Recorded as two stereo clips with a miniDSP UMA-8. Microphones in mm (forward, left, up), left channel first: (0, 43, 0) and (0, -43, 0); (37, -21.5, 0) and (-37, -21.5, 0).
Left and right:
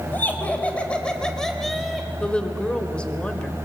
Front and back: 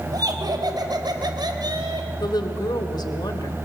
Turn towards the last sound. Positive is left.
turn(degrees=15)